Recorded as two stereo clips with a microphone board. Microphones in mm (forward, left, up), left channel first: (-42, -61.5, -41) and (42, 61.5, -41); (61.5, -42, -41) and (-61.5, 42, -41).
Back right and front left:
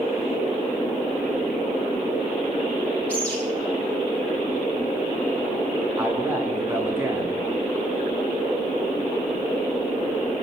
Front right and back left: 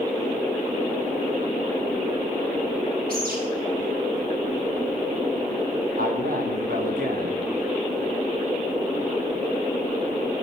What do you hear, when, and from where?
3.1 s a bird: 155° left, 9.5 m
6.0 s a man speaking: 130° left, 6.5 m